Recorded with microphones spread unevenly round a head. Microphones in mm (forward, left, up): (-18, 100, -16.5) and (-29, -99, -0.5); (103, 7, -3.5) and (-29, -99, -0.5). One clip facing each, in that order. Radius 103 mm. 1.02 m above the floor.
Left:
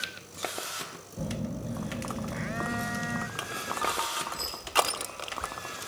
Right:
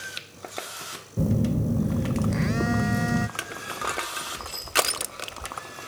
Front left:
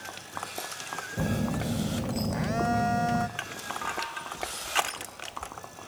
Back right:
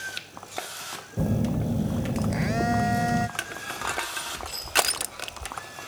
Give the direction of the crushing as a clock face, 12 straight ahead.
4 o'clock.